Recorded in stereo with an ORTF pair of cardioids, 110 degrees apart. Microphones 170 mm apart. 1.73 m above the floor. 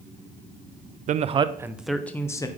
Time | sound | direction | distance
1.1 | a man speaking | 55° right | 0.6 m